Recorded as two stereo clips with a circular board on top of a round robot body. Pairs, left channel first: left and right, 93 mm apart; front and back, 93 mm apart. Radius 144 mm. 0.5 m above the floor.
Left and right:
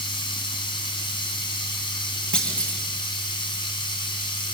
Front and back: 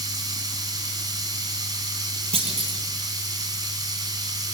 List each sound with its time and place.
0.0 s running water: 130° left, 2.5 m
2.3 s a clunk: 170° left, 2.5 m